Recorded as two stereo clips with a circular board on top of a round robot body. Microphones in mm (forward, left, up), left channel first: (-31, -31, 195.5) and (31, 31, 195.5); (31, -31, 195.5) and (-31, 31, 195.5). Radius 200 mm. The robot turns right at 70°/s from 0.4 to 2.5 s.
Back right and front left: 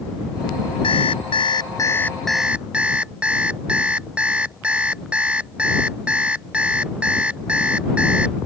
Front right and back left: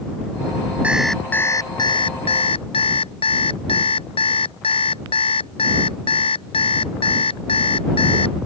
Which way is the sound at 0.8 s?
150° right.